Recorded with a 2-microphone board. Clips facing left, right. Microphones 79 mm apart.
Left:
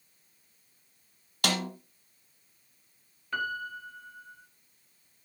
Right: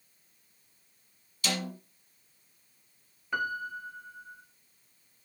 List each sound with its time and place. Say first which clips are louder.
1.4 s a snare drum: left 3 dB; 60° left (ahead or behind), 1.5 m
3.3 s a piano: right 1 dB; 15° right (ahead or behind), 1.0 m